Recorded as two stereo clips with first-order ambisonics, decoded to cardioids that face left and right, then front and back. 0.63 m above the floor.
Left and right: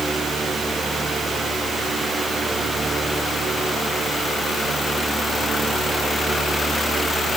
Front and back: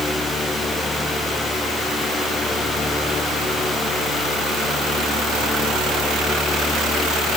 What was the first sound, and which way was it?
Only background noise.